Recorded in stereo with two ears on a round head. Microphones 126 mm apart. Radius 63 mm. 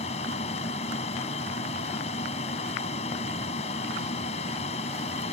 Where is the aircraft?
50° left (ahead or behind).